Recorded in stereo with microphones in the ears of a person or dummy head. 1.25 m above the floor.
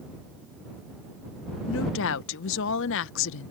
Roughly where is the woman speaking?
Left.